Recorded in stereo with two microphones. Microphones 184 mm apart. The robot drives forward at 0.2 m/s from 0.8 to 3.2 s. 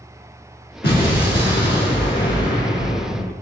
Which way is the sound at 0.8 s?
65° left (ahead or behind).